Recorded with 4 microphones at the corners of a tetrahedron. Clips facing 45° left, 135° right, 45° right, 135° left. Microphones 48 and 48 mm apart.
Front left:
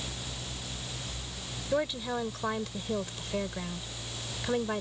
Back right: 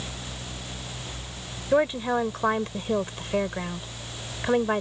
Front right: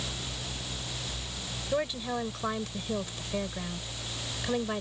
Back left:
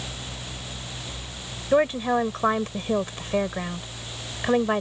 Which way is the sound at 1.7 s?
Straight behind.